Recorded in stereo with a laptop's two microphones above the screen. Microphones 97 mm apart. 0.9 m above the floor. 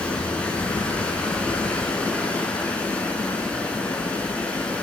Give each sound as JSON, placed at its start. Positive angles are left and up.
{"t": 0.0, "sound": "running water", "side_deg": 15, "distance_m": 8.0}